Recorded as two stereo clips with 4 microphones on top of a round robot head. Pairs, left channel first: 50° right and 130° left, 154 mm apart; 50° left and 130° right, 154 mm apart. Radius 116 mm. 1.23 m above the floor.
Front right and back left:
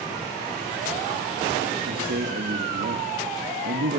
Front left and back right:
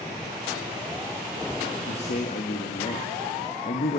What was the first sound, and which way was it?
A man speaking, 100° left.